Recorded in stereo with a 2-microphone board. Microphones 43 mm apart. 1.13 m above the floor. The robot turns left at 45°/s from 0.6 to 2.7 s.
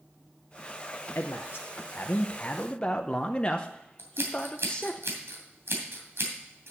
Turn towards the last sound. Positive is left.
turn(degrees=-75)  # may be behind; listen again after turning